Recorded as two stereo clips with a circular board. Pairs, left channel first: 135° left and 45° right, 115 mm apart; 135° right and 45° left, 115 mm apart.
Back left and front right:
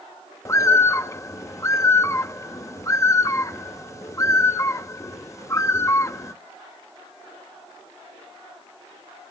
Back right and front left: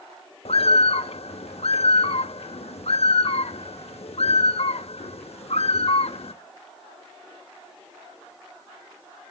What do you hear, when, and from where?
0.5 s a bird: 160° right, 0.7 m